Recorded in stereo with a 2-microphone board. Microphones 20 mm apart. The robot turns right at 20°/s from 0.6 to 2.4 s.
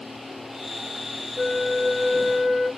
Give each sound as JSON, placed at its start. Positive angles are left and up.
{"t": 1.4, "sound": "a flute", "side_deg": 10, "distance_m": 2.5}